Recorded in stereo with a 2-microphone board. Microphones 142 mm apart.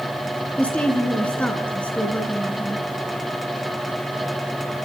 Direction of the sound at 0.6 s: 10° left (ahead or behind).